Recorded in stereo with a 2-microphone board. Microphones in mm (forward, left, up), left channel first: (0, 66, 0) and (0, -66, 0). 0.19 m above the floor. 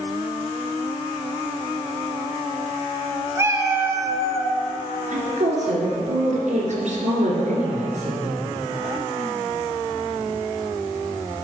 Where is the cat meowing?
20° right (ahead or behind), 0.9 m.